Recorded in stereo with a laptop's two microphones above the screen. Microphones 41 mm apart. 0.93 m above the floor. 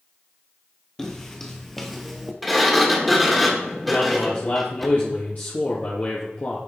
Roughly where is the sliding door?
Centre.